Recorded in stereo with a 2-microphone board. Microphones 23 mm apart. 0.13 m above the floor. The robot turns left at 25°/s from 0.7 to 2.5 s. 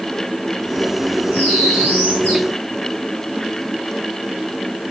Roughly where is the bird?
Left.